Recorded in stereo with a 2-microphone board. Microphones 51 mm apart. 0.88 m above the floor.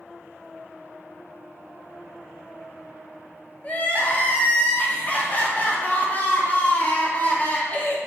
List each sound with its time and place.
3.6 s crying: 30° left (ahead or behind), 0.6 m